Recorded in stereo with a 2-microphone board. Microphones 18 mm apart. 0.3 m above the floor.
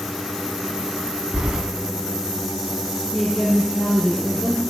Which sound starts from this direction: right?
Keys jangling, at 1.3 s.